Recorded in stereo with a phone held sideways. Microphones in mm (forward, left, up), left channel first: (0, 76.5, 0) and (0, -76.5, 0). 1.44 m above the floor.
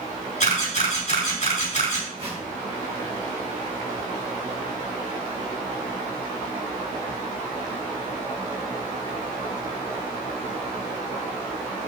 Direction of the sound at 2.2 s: 40° right (ahead or behind).